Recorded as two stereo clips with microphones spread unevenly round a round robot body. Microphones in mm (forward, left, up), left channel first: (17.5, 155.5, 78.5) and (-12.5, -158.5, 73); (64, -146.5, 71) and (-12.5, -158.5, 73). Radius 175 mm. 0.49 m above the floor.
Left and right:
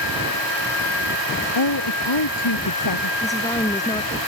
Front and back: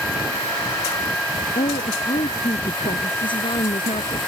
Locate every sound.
1.6 s a woman speaking: 55° left
3.2 s a woman speaking: 5° left